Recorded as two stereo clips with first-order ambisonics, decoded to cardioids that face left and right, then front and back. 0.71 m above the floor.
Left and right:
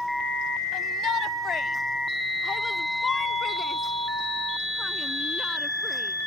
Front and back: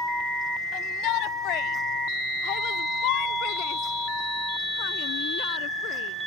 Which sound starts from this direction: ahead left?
A shout, at 0.7 s.